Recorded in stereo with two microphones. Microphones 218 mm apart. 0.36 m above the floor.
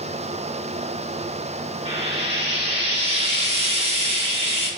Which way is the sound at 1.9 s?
30° right (ahead or behind).